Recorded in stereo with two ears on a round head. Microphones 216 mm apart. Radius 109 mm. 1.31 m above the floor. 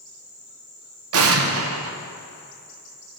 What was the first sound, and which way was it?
An explosion, 65° right (ahead or behind).